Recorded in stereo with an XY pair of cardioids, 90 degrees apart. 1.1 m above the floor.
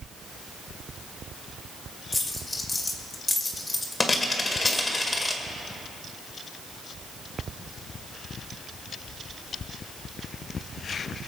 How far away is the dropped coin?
About 2.0 m.